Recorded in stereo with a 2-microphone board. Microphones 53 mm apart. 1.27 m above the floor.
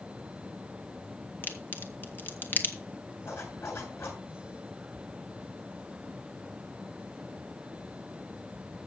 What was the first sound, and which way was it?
A crack, 35° left (ahead or behind).